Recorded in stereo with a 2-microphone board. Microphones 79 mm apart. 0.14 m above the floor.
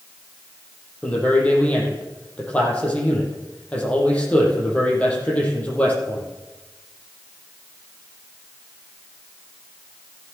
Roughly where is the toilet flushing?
I don't hear a toilet flushing.